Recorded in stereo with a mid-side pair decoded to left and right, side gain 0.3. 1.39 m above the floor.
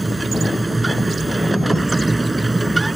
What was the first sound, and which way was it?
A machine running, 20° right.